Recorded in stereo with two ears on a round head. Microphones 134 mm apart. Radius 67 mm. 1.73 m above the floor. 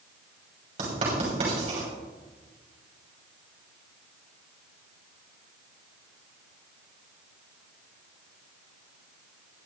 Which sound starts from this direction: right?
Writing, at 0.8 s.